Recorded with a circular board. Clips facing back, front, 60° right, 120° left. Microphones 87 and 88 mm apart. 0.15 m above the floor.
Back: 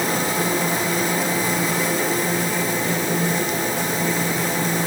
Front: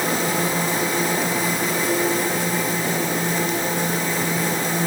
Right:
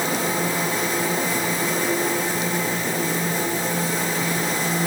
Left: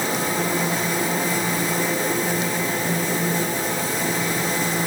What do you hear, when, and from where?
Only background noise.